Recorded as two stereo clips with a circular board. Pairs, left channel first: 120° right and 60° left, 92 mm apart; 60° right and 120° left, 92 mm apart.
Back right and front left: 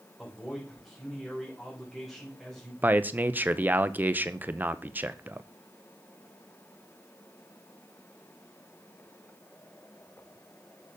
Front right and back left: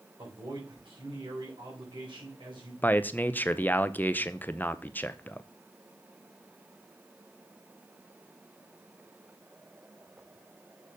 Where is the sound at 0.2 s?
155° left, 4 m.